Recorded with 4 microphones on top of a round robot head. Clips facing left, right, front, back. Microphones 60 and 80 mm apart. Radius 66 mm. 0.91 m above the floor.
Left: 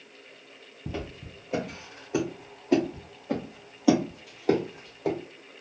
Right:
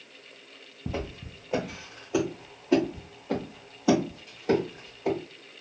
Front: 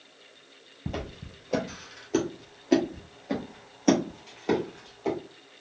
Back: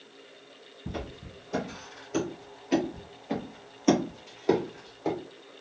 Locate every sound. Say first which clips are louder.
0.9 s footsteps: right 2 dB, front 2 dB; 10° right, 1.4 m; by 5.2 s 100° left, 1.7 m